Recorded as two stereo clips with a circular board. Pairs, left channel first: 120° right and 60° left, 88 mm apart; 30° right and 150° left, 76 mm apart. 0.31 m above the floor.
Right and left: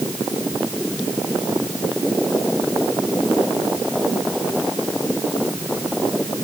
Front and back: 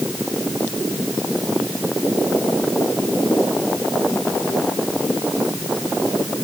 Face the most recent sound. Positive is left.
No sound to turn to.